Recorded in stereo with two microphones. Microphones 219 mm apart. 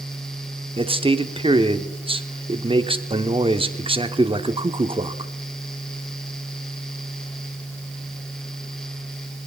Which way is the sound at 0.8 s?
25° right (ahead or behind).